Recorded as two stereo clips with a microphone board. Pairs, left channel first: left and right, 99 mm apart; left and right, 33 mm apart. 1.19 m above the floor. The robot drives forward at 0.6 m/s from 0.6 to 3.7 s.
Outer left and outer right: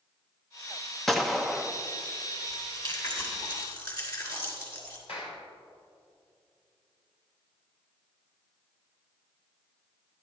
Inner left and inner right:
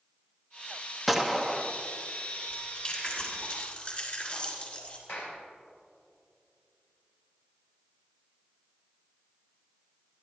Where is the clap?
85° left, 5.5 m.